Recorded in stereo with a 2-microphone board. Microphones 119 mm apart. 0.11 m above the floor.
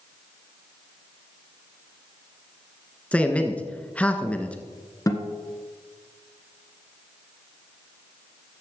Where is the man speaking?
10° left (ahead or behind), 1.1 m.